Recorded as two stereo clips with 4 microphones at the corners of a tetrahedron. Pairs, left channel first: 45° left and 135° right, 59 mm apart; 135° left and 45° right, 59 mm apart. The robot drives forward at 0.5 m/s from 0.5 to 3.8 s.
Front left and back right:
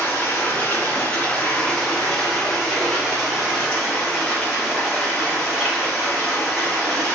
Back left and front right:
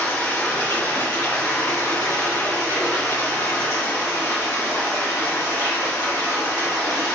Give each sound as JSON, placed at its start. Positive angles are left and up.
{"t": 0.0, "sound": "running water", "azimuth_deg": 90, "distance_m": 1.2}